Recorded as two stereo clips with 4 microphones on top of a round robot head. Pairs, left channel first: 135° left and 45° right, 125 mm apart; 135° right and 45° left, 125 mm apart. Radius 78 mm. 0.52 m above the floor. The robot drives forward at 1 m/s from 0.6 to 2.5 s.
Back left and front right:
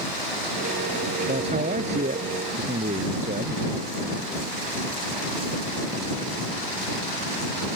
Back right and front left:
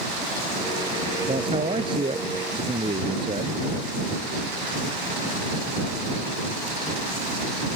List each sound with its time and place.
1.3 s a man speaking: 10° right